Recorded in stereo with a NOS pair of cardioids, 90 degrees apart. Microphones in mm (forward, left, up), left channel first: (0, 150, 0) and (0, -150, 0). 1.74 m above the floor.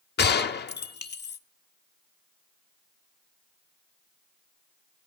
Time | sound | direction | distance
0.2 | a gunshot | 35° left | 0.8 m